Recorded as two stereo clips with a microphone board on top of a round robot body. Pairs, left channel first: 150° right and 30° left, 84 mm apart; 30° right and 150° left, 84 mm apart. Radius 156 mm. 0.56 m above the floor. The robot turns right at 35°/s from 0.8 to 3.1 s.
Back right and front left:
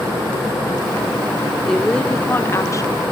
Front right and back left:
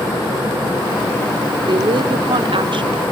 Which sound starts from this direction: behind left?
A woman speaking, at 1.7 s.